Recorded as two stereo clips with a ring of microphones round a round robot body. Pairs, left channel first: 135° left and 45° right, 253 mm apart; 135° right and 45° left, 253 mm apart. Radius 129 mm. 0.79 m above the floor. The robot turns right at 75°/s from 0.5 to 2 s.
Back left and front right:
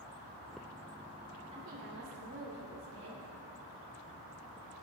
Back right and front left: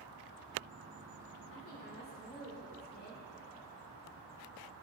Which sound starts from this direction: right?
A woman speaking, at 1.5 s.